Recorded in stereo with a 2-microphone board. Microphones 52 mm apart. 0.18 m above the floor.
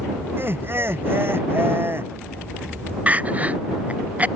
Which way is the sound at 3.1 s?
30° right (ahead or behind).